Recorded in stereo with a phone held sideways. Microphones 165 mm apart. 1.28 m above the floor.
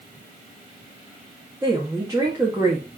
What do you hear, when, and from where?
1.6 s a woman speaking: 20° right (ahead or behind), 2 m